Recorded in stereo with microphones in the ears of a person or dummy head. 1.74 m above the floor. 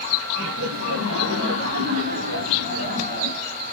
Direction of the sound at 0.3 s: 85° right.